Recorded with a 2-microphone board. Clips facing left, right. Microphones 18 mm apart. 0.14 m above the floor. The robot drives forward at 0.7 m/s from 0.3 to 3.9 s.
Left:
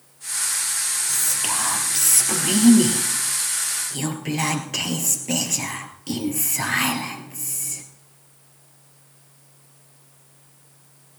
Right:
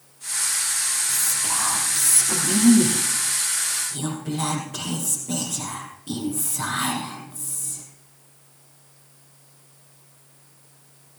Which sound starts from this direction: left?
Whispering, at 1.1 s.